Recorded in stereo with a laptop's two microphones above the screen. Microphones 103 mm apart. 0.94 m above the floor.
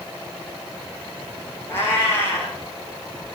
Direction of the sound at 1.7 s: 25° left (ahead or behind).